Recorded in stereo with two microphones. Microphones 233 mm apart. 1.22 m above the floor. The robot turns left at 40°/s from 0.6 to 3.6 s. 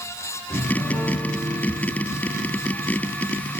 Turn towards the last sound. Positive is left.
turn(degrees=-105)